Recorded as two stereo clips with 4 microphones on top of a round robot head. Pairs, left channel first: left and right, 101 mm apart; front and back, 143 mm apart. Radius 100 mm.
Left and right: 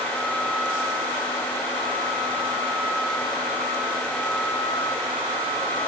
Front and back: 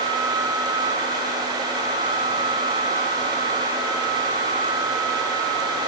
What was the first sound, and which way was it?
Only background noise.